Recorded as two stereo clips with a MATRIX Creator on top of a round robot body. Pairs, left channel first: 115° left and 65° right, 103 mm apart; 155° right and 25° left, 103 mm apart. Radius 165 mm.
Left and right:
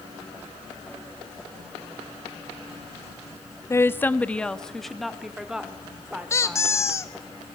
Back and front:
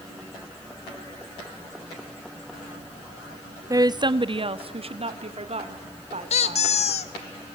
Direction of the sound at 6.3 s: Straight behind.